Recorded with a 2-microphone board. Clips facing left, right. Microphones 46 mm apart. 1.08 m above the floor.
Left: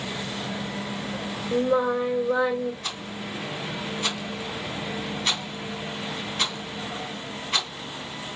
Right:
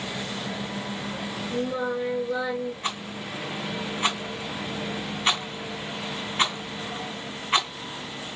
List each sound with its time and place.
1.5 s singing: 55° left (ahead or behind), 1.8 m
2.8 s a rattle: 30° right (ahead or behind), 2.5 m